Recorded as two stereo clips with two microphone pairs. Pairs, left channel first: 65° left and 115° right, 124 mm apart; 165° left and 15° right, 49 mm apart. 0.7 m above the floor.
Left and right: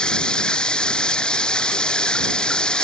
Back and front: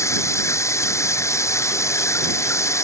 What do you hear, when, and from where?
0.0 s running water: 150° left